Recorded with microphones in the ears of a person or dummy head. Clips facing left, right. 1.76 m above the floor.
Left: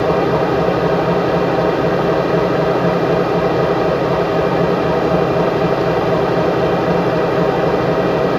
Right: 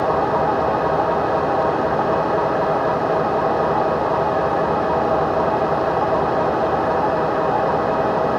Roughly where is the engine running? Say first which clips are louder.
Left 4 dB; left.